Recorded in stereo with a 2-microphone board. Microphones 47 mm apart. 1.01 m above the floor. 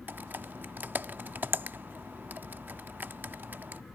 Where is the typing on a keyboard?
45° right (ahead or behind).